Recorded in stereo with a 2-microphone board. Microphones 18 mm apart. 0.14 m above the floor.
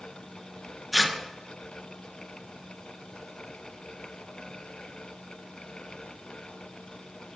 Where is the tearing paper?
5° left (ahead or behind), 0.8 m.